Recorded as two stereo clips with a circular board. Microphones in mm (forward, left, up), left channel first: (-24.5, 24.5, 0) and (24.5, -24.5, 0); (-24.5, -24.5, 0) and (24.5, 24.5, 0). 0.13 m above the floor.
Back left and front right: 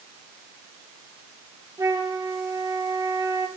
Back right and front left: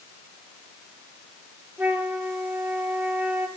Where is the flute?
15° right, 2.5 m.